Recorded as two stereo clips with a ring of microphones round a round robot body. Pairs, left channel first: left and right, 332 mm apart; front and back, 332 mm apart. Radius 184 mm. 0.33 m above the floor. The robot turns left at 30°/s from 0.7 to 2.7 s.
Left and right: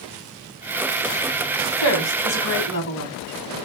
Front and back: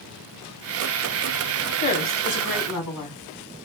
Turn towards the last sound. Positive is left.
turn(degrees=35)